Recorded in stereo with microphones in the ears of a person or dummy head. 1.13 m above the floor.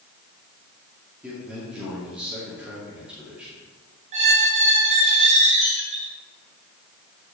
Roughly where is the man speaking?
Centre.